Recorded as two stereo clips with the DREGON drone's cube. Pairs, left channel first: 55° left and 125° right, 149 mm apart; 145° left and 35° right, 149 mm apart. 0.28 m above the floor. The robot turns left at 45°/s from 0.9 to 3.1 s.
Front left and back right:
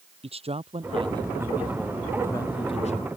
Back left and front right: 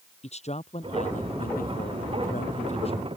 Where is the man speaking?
175° right; by 3.1 s 90° left.